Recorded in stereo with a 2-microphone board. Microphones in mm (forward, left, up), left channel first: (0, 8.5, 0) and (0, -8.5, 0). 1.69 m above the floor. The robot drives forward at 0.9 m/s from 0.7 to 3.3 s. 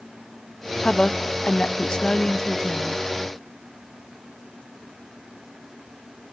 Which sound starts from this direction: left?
A woman speaking, at 0.8 s.